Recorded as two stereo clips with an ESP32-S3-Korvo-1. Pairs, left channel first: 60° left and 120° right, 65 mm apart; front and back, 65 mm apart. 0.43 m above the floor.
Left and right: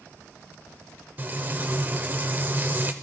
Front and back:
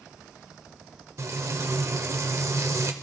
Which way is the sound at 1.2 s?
170° right.